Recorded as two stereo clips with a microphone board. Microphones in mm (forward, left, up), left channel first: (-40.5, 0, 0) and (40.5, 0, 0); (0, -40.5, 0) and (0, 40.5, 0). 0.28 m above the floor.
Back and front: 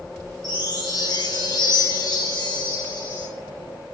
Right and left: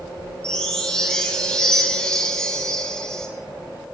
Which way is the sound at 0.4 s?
170° right.